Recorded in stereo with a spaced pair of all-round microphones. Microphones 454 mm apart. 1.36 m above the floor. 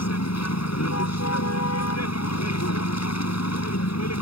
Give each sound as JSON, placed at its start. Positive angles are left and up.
{"t": 0.0, "sound": "a vehicle", "side_deg": 35}